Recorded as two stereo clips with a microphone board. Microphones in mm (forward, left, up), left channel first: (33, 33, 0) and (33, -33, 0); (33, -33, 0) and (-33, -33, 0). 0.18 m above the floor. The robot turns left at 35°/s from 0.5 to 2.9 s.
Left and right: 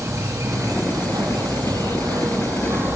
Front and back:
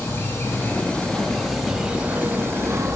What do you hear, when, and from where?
0.0 s an insect: 55° right, 4 m; by 3.0 s 140° right, 4 m